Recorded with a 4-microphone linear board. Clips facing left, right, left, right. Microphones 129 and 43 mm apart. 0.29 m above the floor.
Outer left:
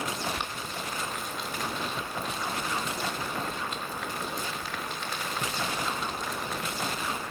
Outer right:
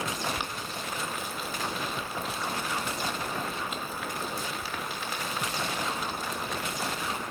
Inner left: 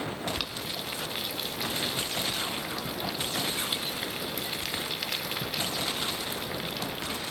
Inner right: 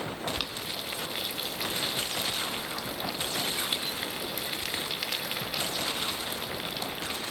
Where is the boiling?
5° right (ahead or behind), 0.9 m.